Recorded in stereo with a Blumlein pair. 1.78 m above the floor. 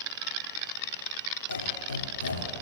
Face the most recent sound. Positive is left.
turn(degrees=70)